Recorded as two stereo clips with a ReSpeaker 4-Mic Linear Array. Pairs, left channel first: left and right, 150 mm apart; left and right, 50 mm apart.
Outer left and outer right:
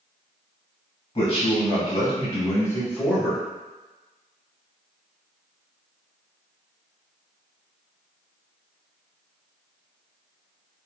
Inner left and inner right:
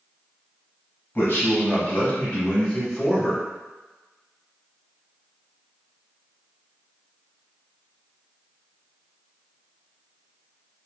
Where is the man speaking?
40° left (ahead or behind), 1.3 m; by 3.4 s 5° left (ahead or behind), 1.2 m.